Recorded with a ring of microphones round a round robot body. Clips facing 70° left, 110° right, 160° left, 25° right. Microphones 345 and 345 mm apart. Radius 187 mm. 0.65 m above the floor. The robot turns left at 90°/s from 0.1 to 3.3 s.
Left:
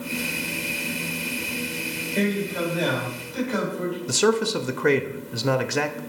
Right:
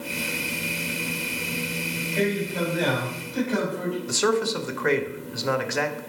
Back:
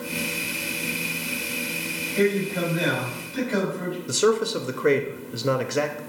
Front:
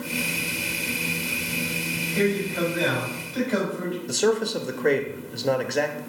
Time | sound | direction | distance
2.1 | a man speaking | 35° left | 4 m
4.1 | a man speaking | 80° left | 0.6 m